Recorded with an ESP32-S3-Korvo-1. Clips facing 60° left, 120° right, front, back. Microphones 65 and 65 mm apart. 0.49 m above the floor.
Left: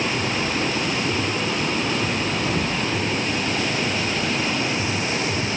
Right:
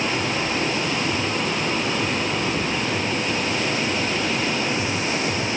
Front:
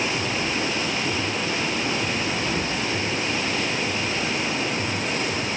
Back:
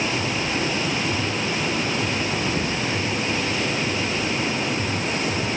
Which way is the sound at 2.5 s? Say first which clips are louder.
Even, back 1 dB; 95° left.